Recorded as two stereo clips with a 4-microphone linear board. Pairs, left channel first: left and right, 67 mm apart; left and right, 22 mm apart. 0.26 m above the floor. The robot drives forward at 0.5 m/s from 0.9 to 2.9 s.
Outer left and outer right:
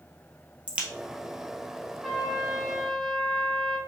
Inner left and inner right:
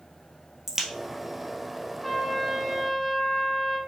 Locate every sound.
0.7 s a crack: 20° right (ahead or behind), 1.2 m
2.0 s a trumpet: centre (ahead or behind), 1.4 m